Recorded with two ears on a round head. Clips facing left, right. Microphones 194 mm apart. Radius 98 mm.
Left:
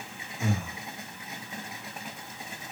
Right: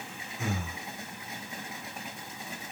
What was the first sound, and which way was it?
Breathing, centre (ahead or behind).